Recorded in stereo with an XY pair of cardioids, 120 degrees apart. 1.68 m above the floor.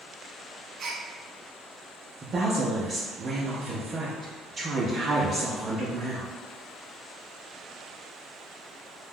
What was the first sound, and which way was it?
A gasp, 55° right.